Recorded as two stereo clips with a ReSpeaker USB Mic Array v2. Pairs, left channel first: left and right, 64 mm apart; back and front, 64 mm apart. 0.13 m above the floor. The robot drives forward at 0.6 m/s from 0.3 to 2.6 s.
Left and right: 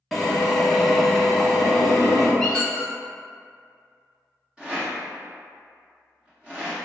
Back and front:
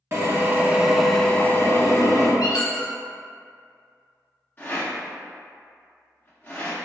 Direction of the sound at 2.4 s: 170° left.